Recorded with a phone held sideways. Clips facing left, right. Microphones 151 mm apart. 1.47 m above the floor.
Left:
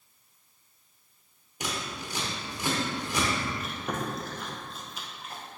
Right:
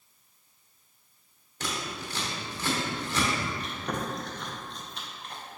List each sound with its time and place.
1.6 s scissors: 15° left (ahead or behind), 1.2 m
3.6 s chewing: 5° left (ahead or behind), 0.8 m